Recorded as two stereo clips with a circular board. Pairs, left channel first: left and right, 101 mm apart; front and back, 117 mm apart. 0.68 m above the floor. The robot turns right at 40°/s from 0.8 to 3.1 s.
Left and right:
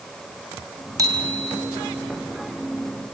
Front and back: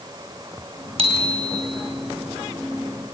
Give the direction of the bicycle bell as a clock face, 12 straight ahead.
5 o'clock.